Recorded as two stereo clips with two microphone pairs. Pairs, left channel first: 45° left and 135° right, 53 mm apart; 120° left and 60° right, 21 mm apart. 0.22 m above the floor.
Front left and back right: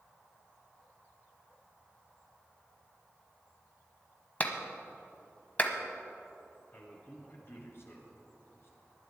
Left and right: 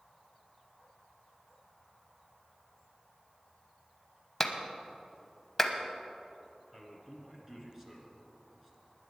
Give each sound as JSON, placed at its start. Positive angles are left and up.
{"t": 4.4, "sound": "a clap", "azimuth_deg": 50, "distance_m": 1.1}
{"t": 6.7, "sound": "a man speaking", "azimuth_deg": 10, "distance_m": 2.5}